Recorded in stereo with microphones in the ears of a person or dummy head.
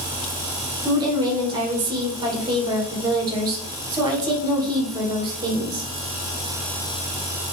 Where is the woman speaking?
25° right (ahead or behind), 1.3 m.